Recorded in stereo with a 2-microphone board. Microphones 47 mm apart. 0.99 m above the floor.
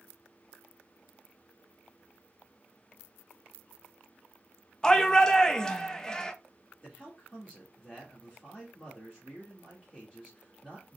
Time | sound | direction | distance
4.8 | a shout | 15° left (ahead or behind) | 0.6 m
6.8 | a man speaking | 10° left (ahead or behind) | 1.5 m